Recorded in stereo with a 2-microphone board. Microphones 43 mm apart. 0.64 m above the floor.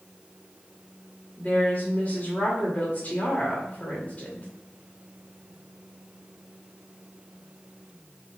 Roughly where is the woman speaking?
Left.